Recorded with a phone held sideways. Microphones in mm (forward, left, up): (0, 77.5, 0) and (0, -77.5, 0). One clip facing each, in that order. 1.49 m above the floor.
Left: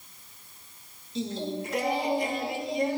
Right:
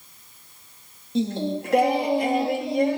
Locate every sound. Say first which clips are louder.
1.1 s singing: right 7 dB; 65° right (ahead or behind), 3 m